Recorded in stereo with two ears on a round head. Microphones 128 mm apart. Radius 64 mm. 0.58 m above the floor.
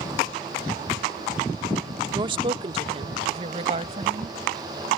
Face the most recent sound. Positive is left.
turn(degrees=-45)  # may be behind; listen again after turning